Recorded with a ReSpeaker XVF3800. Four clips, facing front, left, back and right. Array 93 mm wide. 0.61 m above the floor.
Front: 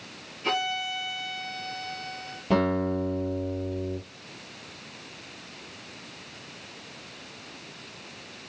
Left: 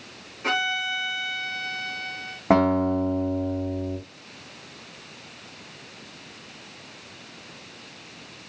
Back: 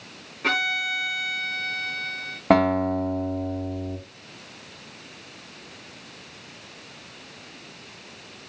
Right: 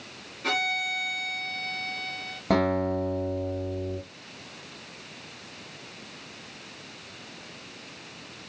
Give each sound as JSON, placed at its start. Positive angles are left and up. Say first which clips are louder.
{"t": 0.4, "sound": "a violin", "louder": "left 3 dB, back 3 dB", "azimuth_deg": 160, "distance_m": 5.0}
{"t": 2.5, "sound": "a guitar", "louder": "left 5 dB, back 5 dB", "azimuth_deg": 155, "distance_m": 5.0}